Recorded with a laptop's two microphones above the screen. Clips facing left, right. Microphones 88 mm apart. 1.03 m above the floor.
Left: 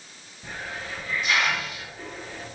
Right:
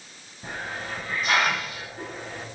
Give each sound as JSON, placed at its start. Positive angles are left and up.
{"t": 0.4, "sound": "a hiss", "side_deg": -45, "distance_m": 8.0}